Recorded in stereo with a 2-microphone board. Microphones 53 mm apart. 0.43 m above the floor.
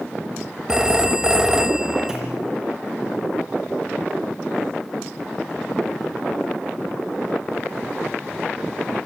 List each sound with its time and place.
0.7 s a phone ringing: 15° right (ahead or behind), 1.2 m
2.1 s a clunk: 10° right (ahead or behind), 7.5 m